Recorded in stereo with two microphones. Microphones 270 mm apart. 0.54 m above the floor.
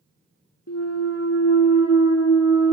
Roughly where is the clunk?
Left.